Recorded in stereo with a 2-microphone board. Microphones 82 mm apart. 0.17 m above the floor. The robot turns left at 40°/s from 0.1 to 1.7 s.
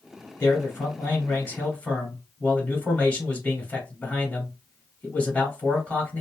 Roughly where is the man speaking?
Left.